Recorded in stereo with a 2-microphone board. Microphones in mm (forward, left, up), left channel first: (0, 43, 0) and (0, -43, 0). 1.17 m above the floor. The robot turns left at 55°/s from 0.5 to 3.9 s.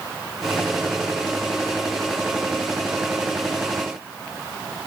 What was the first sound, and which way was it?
Only background noise.